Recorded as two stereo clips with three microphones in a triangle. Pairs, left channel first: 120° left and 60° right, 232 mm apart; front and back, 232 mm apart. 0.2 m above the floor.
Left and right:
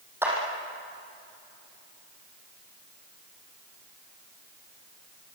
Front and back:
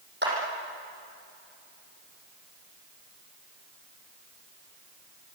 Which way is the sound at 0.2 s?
140° right.